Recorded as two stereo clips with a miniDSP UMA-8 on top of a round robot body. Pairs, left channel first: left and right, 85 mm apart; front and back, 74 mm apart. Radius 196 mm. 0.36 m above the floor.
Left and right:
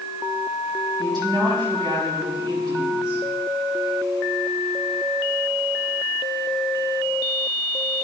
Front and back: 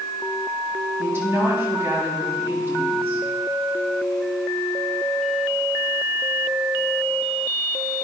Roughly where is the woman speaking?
Behind right.